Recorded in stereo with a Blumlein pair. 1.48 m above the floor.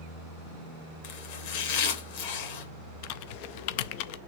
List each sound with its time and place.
1.0 s chopping: 50° left, 1.9 m
3.0 s typing on a keyboard: 45° left, 0.5 m